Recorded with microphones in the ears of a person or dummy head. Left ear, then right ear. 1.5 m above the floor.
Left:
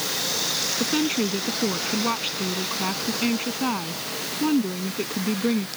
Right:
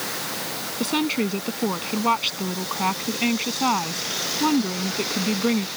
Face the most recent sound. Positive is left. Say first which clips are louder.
# even
turn(degrees=-20)  # may be behind; listen again after turning